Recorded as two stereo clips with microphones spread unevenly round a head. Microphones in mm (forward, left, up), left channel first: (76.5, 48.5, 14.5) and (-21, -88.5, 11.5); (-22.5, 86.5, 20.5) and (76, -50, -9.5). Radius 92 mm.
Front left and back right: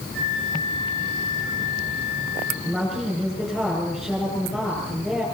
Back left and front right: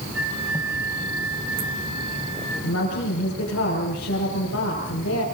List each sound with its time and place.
0.1 s a flute: 95° right, 9 m
2.6 s a woman speaking: 145° left, 8 m